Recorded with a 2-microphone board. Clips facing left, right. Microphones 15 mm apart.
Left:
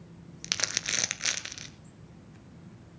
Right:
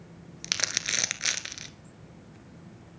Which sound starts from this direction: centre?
Crumpling, at 0.4 s.